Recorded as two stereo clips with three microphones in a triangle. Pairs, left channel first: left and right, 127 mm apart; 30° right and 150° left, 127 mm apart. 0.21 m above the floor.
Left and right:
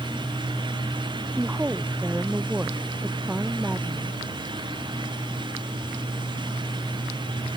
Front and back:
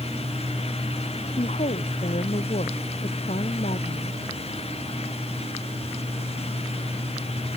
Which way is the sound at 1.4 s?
15° right.